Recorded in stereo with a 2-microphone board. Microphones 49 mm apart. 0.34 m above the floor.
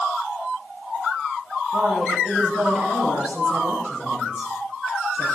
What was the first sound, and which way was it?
A woman speaking, 15° right (ahead or behind).